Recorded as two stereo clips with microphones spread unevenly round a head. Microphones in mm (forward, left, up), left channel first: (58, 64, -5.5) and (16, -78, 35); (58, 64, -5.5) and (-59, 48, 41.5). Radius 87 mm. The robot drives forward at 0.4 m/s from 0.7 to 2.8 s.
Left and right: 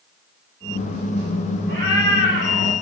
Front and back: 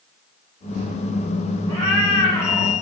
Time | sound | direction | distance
1.7 | a cat meowing | 110° right | 6.5 m